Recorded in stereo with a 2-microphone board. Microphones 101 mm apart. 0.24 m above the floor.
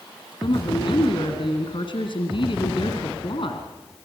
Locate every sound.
0.4 s a woman speaking: 60° left (ahead or behind), 2.5 m